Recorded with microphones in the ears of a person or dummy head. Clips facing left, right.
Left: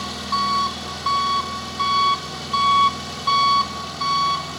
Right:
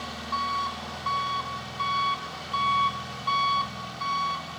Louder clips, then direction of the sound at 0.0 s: Left 7 dB; 70° left (ahead or behind).